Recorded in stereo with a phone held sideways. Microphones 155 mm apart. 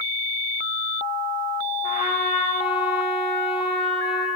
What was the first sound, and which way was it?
A trumpet, 35° left (ahead or behind).